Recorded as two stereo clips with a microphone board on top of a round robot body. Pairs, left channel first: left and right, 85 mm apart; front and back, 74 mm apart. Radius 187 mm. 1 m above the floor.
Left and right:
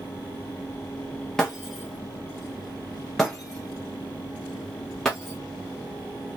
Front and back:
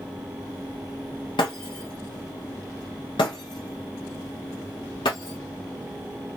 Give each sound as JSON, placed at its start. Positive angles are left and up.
{"t": 1.4, "sound": "breaking glass", "azimuth_deg": 5, "distance_m": 0.6}